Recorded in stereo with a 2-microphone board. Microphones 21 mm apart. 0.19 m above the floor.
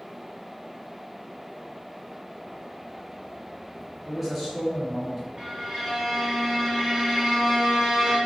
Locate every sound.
4.0 s a man speaking: 5° left (ahead or behind), 1.2 m
5.4 s a violin: 15° right (ahead or behind), 1.3 m